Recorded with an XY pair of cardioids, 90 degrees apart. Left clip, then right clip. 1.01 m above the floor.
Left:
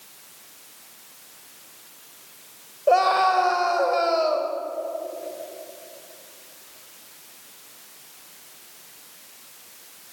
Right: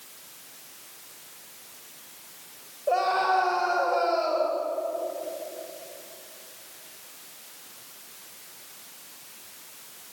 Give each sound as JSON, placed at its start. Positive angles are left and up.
{"t": 2.9, "sound": "a scream", "azimuth_deg": 60, "distance_m": 4.0}